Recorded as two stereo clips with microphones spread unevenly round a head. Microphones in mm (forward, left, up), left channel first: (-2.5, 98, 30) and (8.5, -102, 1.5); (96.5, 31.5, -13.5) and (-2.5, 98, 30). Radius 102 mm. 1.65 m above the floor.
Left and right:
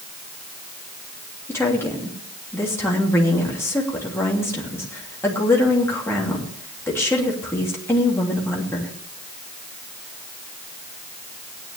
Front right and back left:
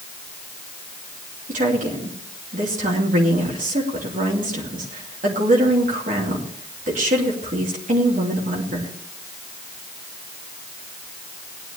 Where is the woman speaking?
170° left, 3 m.